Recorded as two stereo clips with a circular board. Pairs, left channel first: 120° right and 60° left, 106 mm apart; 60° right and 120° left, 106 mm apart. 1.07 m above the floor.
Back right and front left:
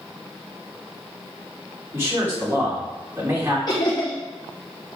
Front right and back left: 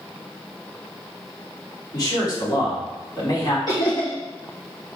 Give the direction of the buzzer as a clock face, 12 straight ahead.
No buzzer in this recording.